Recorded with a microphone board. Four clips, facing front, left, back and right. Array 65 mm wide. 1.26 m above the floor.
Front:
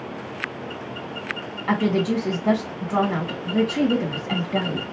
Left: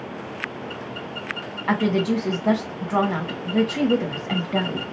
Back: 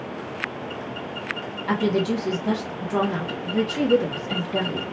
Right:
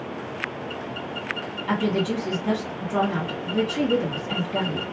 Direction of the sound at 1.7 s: 65° left.